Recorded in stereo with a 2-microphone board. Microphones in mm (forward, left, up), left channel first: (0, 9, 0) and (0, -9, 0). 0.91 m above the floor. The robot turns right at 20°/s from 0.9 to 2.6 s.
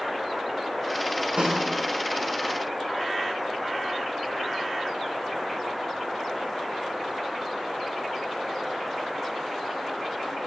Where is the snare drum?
70° right (ahead or behind), 6 m; by 1.6 s 65° right (ahead or behind), 6 m.